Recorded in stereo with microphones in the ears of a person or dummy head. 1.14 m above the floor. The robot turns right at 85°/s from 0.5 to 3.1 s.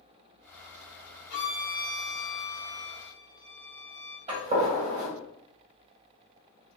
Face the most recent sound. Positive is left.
turn(degrees=-35)  # may be behind; listen again after turning